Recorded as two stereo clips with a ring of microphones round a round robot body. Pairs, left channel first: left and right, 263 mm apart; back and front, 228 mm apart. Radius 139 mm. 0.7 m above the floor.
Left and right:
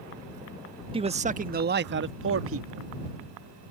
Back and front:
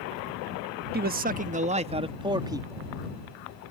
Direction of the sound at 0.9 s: 25° right.